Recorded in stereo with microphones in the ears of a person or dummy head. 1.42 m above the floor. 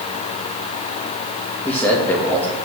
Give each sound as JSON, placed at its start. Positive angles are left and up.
{"t": 1.6, "sound": "a man speaking", "side_deg": 10, "distance_m": 1.6}